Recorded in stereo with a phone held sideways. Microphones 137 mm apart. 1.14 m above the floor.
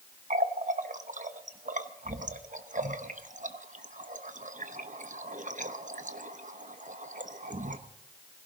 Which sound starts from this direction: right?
A running tap, at 0.3 s.